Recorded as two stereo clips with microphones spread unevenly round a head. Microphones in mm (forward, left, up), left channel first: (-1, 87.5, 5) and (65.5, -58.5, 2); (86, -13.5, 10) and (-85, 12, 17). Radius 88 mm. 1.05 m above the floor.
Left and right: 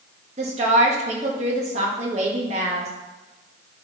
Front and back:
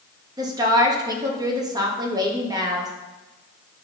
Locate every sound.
0.4 s a woman speaking: 120° right, 1.4 m